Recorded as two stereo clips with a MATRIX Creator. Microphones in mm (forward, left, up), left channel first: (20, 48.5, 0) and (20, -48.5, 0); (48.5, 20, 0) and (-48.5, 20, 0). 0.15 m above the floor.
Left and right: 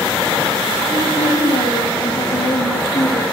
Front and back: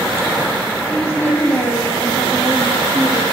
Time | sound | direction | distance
0.9 | a woman speaking | 75° left | 7 m